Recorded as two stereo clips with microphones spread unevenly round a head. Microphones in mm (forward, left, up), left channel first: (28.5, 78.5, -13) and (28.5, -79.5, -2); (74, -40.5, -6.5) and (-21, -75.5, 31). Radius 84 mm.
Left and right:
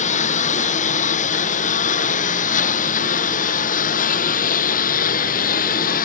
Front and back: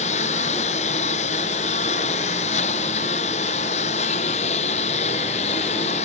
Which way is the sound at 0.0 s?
45° left.